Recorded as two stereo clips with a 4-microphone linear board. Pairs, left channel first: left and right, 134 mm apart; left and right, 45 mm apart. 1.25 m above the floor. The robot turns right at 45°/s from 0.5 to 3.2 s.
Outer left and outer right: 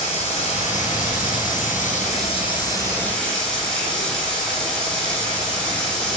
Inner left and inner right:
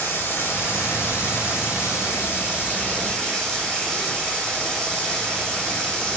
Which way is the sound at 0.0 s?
50° left.